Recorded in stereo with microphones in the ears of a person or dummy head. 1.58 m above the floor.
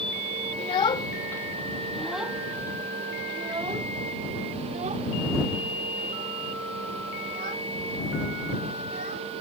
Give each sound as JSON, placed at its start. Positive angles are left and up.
{"t": 0.6, "sound": "a child speaking", "side_deg": 30}